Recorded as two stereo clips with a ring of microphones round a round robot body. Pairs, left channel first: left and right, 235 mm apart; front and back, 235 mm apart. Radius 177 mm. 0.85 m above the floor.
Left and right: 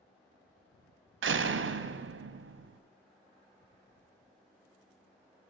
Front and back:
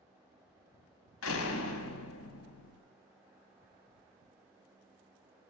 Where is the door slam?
45° right, 0.6 m.